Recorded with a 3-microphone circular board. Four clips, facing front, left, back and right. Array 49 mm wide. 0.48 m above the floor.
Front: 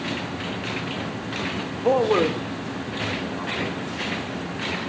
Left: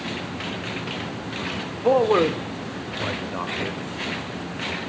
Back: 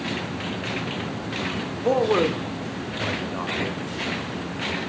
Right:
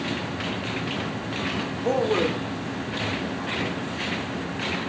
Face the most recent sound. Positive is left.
turn(degrees=110)